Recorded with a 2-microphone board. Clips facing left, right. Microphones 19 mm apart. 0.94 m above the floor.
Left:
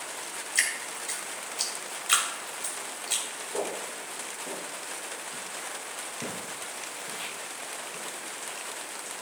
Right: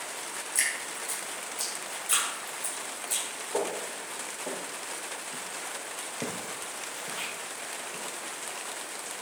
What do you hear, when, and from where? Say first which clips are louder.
0.6 s dripping: left 3 dB; 40° left (ahead or behind), 2.5 m
3.5 s footsteps: right 2 dB; 45° right (ahead or behind), 3.5 m; by 8.3 s 70° right (ahead or behind), 3.5 m